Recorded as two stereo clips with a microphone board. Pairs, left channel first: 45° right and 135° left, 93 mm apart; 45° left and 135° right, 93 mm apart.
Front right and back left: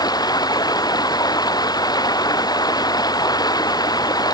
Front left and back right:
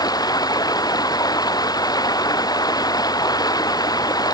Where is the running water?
Straight ahead.